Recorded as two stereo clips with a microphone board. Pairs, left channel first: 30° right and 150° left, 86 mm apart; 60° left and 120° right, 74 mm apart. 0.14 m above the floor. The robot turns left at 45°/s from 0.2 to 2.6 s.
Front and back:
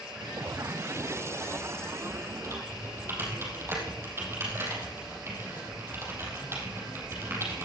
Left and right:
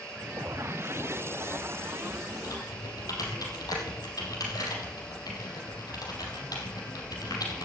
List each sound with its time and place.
2.4 s typing on a keyboard: 95° left, 4 m; by 7.7 s 90° left, 4 m